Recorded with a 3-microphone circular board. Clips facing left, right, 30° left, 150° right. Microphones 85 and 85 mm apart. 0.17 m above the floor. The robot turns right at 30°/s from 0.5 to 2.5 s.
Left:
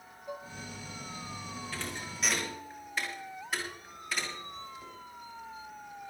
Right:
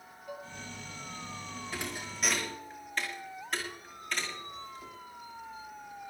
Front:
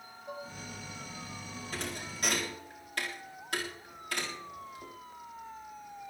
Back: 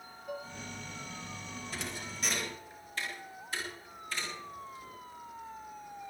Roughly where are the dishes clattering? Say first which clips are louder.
Left 2 dB, back 1 dB; ahead left.